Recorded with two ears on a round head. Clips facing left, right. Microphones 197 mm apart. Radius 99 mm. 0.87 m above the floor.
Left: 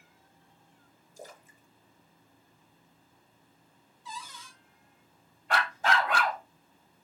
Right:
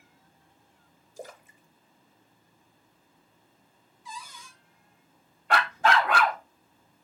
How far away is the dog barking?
About 0.6 m.